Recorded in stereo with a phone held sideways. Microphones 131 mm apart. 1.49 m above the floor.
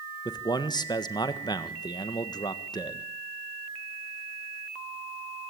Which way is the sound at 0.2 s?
35° left (ahead or behind).